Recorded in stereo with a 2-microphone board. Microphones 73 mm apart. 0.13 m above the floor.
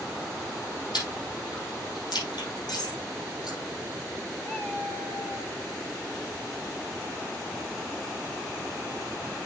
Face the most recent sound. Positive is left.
turn(degrees=25)  # may be behind; listen again after turning